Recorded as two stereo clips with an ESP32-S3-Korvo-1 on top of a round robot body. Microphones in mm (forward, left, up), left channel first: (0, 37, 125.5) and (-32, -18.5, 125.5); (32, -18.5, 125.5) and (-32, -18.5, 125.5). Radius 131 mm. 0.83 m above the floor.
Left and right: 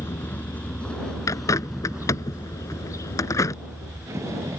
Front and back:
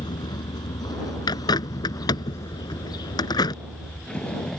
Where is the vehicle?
5° left; by 4.6 s 80° right.